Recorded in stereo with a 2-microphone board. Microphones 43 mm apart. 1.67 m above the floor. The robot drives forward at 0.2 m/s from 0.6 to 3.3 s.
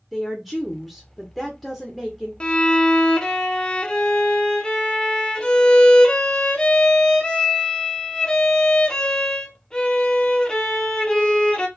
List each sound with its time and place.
0.1 s a woman speaking: 5° left (ahead or behind), 0.6 m
2.4 s a violin: 25° left (ahead or behind), 0.6 m; by 11.7 s 20° left (ahead or behind), 0.7 m